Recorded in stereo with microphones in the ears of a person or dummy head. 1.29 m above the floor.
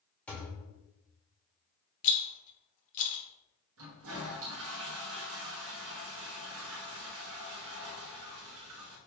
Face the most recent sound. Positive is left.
turn(degrees=-65)  # may be behind; listen again after turning